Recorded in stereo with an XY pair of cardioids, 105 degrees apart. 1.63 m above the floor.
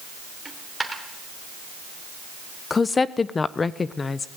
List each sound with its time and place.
0.5 s a dropped coin: 15° right, 3 m
2.7 s a woman speaking: 30° left, 0.9 m